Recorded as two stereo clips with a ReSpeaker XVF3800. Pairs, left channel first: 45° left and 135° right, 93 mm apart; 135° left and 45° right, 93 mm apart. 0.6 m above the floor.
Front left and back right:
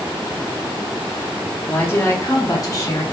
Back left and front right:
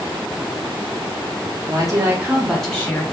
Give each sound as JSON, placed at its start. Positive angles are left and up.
{"t": 1.6, "sound": "a woman speaking", "azimuth_deg": -20, "distance_m": 0.9}